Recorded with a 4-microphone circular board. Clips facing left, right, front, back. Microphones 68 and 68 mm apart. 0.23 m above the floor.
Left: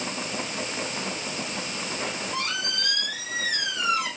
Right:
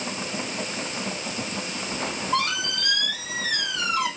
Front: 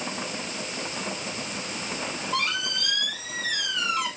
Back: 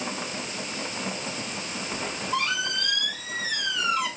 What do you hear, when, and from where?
1.9 s a squeak: 90° right, 3 m